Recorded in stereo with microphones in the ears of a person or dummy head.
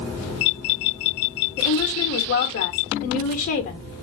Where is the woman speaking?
50° left (ahead or behind), 1.0 m.